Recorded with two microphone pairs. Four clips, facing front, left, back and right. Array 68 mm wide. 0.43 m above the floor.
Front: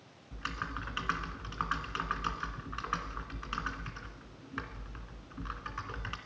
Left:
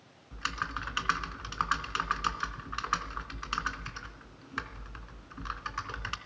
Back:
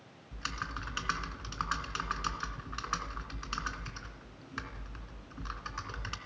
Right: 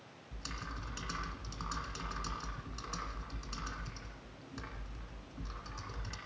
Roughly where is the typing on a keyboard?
Left.